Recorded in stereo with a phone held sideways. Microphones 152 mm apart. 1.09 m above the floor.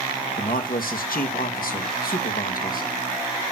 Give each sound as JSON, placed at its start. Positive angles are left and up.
{"t": 0.4, "sound": "a man speaking", "side_deg": 70, "distance_m": 1.1}